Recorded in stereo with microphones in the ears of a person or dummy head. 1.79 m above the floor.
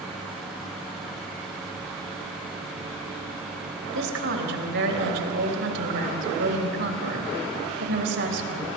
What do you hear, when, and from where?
3.9 s a woman speaking: 65° right (ahead or behind), 3.5 m